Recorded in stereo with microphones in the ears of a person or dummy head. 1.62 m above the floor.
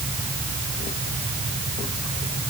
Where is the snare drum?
No snare drum in this recording.